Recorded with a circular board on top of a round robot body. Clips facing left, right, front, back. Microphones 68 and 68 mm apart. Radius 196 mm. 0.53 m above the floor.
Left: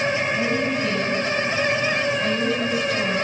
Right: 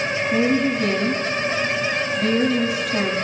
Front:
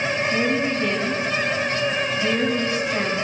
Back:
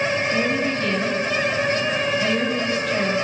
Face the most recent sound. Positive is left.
turn(degrees=-75)